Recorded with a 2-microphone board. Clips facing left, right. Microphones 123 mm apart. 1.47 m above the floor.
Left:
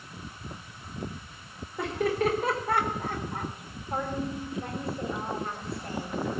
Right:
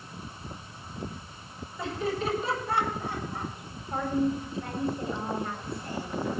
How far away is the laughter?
About 4.5 m.